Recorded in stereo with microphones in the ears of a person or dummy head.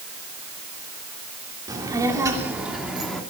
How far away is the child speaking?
About 3 m.